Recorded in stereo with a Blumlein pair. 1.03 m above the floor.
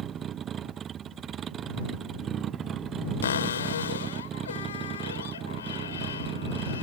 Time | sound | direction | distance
0.0 | a vehicle | 25° right | ?
3.2 | a cupboard door | 65° left | ?